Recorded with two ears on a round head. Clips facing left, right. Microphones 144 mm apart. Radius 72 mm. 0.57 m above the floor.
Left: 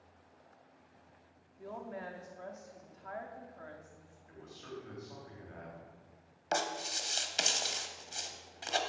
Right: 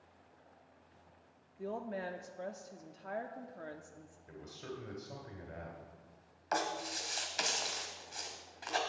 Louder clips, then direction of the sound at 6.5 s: Left 1 dB; 35° left (ahead or behind).